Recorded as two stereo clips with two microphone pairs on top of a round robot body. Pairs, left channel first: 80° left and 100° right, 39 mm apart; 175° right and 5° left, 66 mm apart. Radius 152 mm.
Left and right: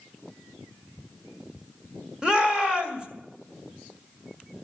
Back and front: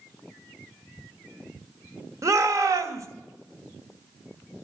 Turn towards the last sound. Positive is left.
turn(degrees=-25)